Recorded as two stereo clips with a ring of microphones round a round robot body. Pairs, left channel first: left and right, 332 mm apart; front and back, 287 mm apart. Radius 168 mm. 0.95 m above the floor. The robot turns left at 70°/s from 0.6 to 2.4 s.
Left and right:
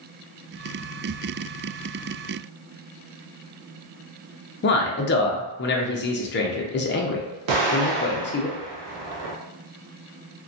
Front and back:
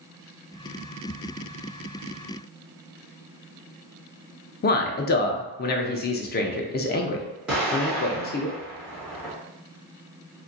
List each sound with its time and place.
4.6 s a man speaking: 45° left, 0.5 m
7.5 s an explosion: 95° right, 1.0 m